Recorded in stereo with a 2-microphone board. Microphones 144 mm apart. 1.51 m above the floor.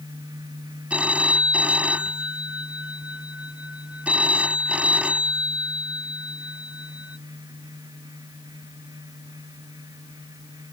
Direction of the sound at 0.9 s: 10° right (ahead or behind).